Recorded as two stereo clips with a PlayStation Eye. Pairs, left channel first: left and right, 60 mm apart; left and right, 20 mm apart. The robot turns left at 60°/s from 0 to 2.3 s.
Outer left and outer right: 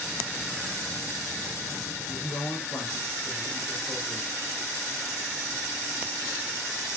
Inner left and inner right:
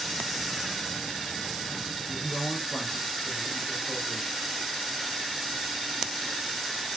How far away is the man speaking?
About 6.5 m.